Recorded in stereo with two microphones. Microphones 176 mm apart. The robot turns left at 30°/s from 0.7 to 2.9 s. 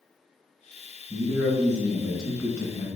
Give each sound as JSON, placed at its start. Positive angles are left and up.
{"t": 1.1, "sound": "a man speaking", "azimuth_deg": -150, "distance_m": 1.4}